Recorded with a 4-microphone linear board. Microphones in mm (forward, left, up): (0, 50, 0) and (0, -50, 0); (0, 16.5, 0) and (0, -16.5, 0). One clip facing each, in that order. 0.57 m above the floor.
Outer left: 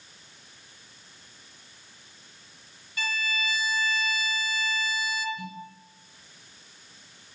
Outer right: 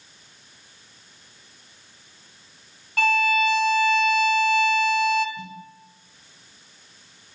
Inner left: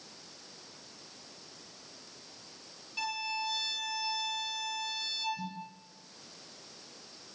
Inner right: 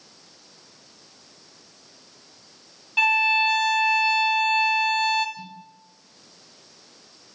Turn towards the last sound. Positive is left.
turn(degrees=-30)  # may be behind; listen again after turning